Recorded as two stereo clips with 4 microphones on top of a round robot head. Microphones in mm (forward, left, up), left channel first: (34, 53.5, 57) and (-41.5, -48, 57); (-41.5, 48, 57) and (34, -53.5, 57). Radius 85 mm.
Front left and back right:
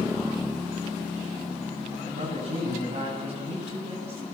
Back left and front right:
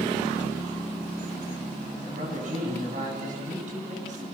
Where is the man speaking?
80° right, 9.5 m.